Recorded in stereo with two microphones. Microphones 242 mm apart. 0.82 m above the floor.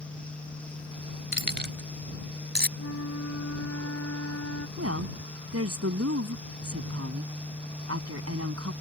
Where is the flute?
80° left.